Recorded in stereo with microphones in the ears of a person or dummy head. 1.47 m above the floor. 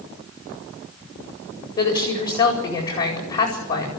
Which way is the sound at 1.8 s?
20° left (ahead or behind).